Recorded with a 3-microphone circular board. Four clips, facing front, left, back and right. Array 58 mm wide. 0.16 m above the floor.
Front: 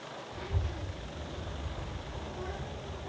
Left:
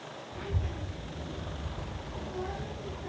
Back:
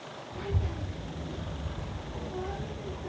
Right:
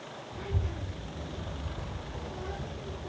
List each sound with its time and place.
0.3 s a child speaking: 170° left, 4 m; by 3.1 s 155° left, 2 m